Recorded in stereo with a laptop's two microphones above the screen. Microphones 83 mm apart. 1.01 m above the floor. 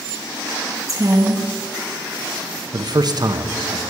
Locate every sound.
0.9 s a woman speaking: 40° right (ahead or behind), 1.6 m
2.7 s a man speaking: 55° right (ahead or behind), 0.7 m